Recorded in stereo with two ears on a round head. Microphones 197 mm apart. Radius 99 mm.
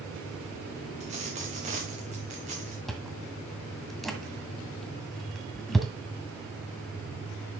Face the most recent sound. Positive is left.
turn(degrees=0)  # may be behind; listen again after turning